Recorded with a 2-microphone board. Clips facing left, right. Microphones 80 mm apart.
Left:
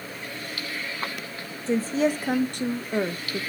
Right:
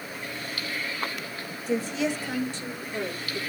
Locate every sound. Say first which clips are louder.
1.7 s a woman speaking: left 4 dB; 30° left (ahead or behind), 1.4 m; by 3.4 s 50° left (ahead or behind), 1.4 m